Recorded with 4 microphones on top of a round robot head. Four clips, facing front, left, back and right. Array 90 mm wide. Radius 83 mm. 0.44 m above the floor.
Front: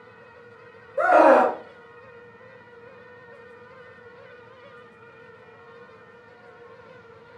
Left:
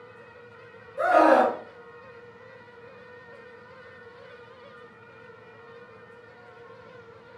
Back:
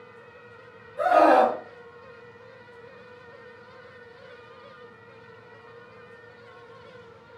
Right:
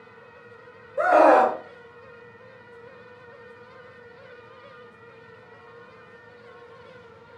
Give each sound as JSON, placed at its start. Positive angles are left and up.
{"t": 1.0, "sound": "a scream", "azimuth_deg": -40, "distance_m": 1.8}